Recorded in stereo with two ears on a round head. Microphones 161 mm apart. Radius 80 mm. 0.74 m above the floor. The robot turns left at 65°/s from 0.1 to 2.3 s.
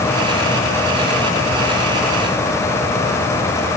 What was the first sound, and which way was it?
Only background noise.